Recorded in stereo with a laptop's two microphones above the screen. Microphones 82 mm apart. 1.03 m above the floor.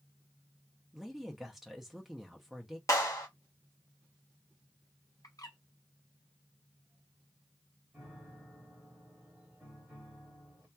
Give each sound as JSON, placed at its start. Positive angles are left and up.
{"t": 0.9, "sound": "a woman speaking", "side_deg": -5, "distance_m": 0.6}
{"t": 2.9, "sound": "a clap", "side_deg": 40, "distance_m": 0.9}
{"t": 5.2, "sound": "a bird", "side_deg": 45, "distance_m": 0.6}
{"t": 7.9, "sound": "a piano", "side_deg": -15, "distance_m": 1.3}